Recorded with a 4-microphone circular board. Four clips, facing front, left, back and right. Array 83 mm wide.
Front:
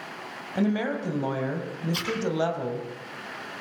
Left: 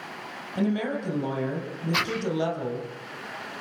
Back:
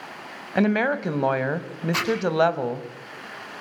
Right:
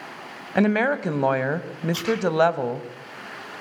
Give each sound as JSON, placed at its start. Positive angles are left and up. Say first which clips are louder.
{"t": 0.6, "sound": "a woman speaking", "louder": "right 6 dB, back 5 dB", "azimuth_deg": -125, "distance_m": 2.5}
{"t": 1.9, "sound": "a zipper", "louder": "right 3 dB, back 8 dB", "azimuth_deg": 150, "distance_m": 6.0}